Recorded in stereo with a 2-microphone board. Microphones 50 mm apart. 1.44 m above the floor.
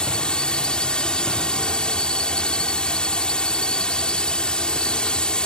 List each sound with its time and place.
0.0 s a drone: 20° left (ahead or behind)